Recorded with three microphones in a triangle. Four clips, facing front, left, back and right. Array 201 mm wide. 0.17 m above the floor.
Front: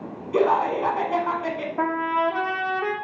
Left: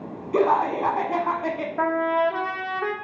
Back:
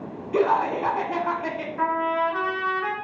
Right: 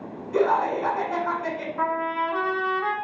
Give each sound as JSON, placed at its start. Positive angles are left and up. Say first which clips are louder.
{"t": 0.3, "sound": "laughter", "louder": "left 1 dB, front 1 dB", "azimuth_deg": 85, "distance_m": 1.3}
{"t": 1.8, "sound": "a trumpet", "louder": "left 4 dB, even", "azimuth_deg": 40, "distance_m": 1.4}